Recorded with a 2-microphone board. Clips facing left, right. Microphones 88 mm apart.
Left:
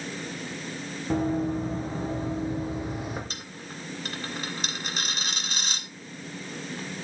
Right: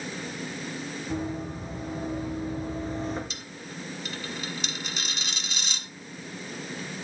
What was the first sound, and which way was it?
Running footsteps, 45° left (ahead or behind).